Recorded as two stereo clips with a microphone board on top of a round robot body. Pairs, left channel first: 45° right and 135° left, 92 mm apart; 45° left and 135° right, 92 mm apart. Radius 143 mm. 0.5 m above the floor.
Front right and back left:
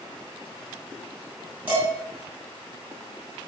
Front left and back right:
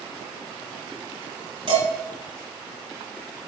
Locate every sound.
1.7 s dishes clattering: 155° right, 4 m